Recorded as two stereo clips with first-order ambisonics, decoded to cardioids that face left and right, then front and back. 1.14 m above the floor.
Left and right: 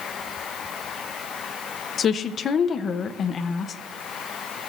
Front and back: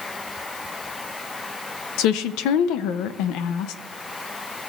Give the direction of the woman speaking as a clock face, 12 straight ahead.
11 o'clock.